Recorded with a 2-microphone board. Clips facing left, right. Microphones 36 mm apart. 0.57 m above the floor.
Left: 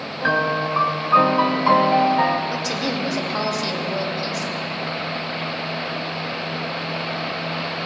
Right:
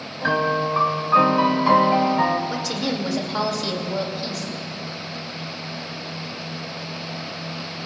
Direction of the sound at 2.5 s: Centre (ahead or behind).